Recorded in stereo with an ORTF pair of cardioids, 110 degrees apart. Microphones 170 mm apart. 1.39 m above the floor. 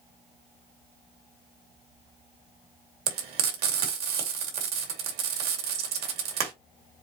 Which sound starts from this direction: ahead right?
Frying, at 3.1 s.